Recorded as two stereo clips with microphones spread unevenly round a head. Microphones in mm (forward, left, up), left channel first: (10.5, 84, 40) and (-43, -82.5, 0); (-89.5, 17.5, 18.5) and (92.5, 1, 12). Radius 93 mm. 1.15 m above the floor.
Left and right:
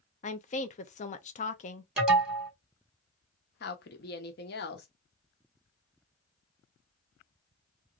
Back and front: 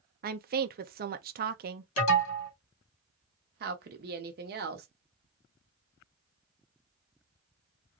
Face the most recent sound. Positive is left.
turn(degrees=35)